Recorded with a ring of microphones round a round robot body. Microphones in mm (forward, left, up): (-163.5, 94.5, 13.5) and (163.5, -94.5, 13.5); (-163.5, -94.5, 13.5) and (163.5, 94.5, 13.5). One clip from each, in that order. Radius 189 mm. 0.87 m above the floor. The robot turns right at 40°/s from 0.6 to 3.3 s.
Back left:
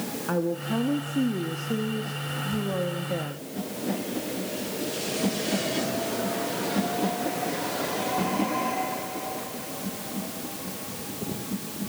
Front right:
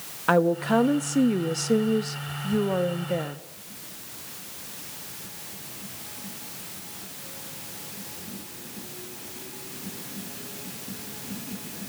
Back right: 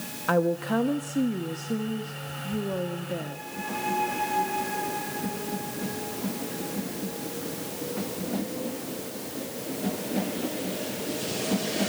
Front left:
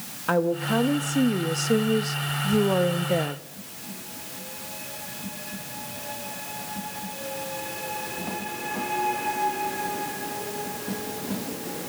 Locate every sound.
0.3 s a woman speaking: 65° right, 1.2 m; by 3.4 s 45° left, 1.2 m